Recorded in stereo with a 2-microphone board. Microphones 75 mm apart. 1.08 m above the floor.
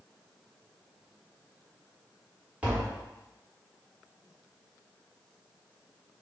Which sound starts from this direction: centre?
Tapping, at 2.6 s.